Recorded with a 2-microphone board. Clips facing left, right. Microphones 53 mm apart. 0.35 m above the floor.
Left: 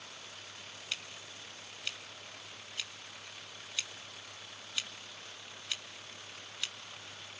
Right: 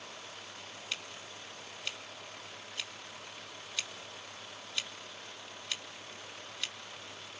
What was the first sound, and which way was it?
Scissors, centre (ahead or behind).